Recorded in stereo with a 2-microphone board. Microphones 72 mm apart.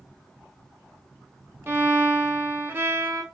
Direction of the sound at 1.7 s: 30° right (ahead or behind).